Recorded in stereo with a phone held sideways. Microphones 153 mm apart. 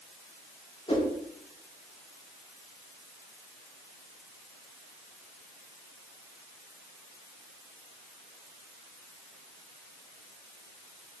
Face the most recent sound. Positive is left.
turn(degrees=40)  # may be behind; listen again after turning